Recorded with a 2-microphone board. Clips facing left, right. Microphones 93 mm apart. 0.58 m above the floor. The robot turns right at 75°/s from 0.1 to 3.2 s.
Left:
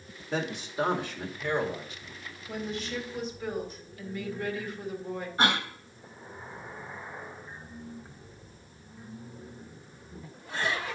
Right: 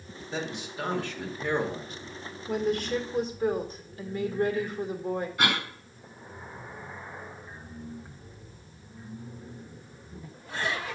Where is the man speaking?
115° left, 2.0 m; by 2.2 s 105° right, 2.0 m.